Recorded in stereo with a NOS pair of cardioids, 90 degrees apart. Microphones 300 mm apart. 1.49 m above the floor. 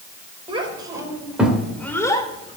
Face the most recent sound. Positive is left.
turn(degrees=20)